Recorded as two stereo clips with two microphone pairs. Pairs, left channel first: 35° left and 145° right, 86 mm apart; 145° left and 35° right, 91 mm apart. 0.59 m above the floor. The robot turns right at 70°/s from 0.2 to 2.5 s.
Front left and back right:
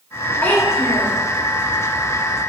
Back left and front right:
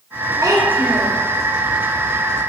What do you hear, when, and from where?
0.4 s a child speaking: 30° right, 0.6 m; by 1.2 s 25° left, 0.6 m